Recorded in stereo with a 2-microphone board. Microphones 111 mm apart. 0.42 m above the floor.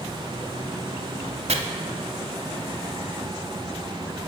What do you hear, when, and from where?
1.5 s chopping: 70° right (ahead or behind), 0.6 m